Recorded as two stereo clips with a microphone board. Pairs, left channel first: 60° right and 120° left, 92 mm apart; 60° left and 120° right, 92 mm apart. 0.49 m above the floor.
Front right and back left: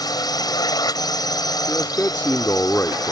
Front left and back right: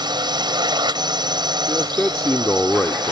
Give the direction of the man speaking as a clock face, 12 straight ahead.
12 o'clock.